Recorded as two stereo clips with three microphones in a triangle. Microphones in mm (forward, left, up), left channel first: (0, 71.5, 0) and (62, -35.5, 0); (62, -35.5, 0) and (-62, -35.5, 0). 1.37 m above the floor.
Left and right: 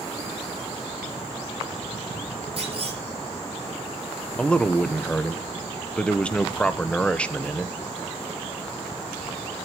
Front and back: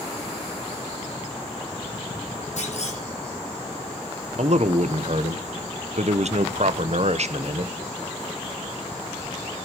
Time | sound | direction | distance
2.6 | a clunk | 20° right | 9 m
4.4 | a man speaking | 160° right | 0.9 m